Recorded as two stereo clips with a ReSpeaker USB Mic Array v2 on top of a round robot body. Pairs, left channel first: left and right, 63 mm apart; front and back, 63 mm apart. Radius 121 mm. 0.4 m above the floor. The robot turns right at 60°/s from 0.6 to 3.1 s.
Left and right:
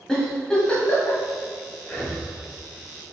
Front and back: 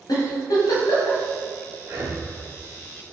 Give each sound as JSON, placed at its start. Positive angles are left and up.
{"t": 0.1, "sound": "a giggle", "azimuth_deg": 10, "distance_m": 1.7}
{"t": 1.8, "sound": "breathing", "azimuth_deg": 155, "distance_m": 1.9}